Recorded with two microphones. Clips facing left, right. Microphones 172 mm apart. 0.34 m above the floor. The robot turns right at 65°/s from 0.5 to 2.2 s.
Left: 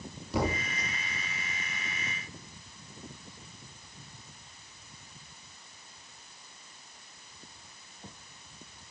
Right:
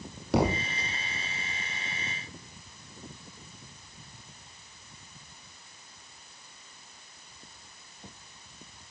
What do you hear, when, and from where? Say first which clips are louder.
0.3 s a thud: right 5 dB; 70° right (ahead or behind), 4.5 m; by 0.7 s 55° right (ahead or behind), 4.5 m